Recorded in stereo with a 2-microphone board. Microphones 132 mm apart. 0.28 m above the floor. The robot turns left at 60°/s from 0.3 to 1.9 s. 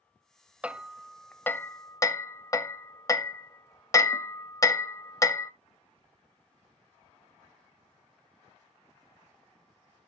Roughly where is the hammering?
Centre.